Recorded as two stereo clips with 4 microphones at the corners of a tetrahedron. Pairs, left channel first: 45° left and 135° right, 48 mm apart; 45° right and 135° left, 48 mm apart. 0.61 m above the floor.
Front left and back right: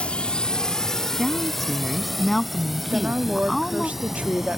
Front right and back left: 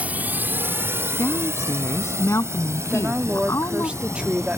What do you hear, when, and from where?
0.0 s a drone: 95° left; by 4.6 s 140° left
1.2 s a woman speaking: 45° right
2.9 s a woman speaking: 175° right